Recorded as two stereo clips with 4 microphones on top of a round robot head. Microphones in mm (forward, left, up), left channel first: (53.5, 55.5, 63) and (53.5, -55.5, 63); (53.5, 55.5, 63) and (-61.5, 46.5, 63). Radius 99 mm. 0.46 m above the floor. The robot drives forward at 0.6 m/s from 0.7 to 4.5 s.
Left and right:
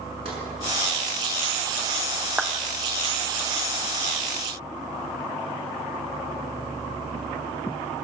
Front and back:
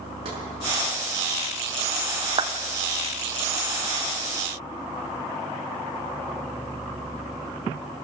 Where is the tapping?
130° right, 6.5 m.